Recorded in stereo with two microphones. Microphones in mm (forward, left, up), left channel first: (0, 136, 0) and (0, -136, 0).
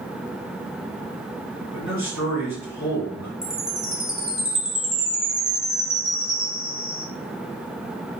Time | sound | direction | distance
1.7 | a man speaking | 80° left | 1.8 m
3.4 | a chime | centre (ahead or behind) | 0.6 m